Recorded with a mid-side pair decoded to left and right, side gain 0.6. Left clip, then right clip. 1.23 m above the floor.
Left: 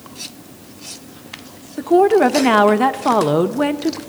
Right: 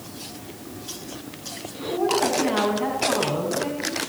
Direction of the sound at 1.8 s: 65° left.